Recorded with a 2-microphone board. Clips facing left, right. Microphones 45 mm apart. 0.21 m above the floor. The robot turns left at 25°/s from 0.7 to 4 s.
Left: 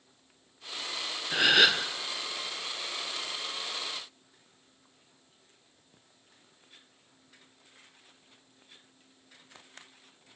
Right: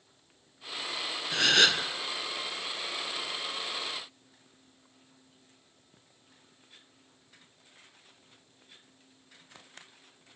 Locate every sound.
1.3 s a gasp: 15° left (ahead or behind), 1.0 m; by 1.9 s centre (ahead or behind), 1.0 m